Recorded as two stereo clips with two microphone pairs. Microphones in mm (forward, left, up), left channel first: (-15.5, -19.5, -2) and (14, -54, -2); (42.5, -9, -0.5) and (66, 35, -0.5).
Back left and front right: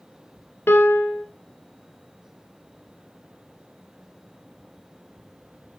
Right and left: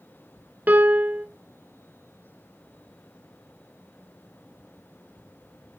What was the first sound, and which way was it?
A piano, 110° left.